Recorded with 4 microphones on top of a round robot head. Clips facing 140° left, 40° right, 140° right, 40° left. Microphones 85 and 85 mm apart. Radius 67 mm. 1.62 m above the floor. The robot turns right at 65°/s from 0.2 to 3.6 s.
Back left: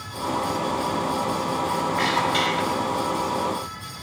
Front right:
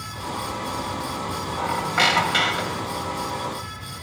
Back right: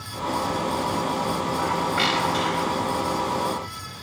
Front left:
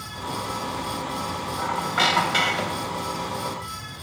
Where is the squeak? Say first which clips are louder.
Front right 5 dB, front left 2 dB; 45° right, 4 m; by 3.0 s 50° left, 4 m.